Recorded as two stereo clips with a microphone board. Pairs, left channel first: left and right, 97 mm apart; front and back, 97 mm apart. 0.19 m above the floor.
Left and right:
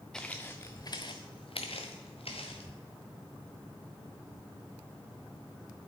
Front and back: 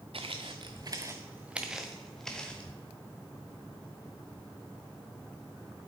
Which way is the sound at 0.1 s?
170° left.